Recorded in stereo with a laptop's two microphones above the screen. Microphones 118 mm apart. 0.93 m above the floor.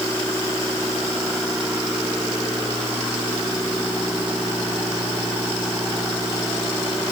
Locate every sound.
Only background noise.